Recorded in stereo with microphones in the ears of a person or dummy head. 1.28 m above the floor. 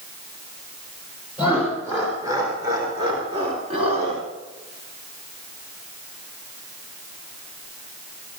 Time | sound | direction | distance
1.4 | laughter | 15° right (ahead or behind) | 4 m